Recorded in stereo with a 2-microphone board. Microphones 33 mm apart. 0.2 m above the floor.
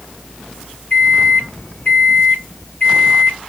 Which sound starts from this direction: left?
A microwave, at 0.9 s.